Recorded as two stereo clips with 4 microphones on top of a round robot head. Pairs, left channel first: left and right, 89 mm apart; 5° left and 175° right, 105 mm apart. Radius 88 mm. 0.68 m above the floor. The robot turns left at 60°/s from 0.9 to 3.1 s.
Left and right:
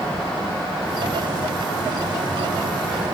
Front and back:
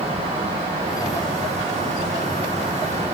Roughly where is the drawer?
I don't hear a drawer.